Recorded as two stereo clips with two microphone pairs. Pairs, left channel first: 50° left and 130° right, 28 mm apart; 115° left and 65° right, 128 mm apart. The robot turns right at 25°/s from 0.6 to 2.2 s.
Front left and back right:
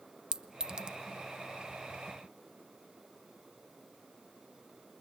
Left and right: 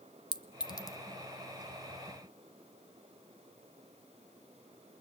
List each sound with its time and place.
0.3 s a clink: 165° left, 0.8 m; by 1.0 s 175° left, 0.8 m